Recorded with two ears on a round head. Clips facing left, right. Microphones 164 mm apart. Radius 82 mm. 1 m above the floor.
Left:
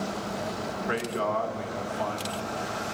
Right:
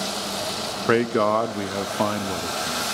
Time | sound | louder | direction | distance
0.9 | a man speaking | right 10 dB | 70° right (ahead or behind) | 0.9 m